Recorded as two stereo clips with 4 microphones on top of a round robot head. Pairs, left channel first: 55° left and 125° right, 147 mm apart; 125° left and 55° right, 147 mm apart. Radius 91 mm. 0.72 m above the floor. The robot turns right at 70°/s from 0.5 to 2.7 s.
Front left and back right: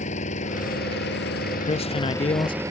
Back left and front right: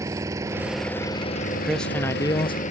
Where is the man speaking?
30° left; by 2.6 s 95° left.